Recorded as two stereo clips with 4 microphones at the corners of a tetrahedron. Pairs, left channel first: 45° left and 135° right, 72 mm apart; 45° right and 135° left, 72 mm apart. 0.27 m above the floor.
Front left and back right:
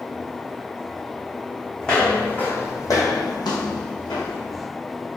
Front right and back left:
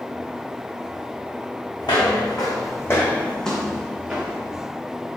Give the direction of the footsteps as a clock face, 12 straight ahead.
1 o'clock.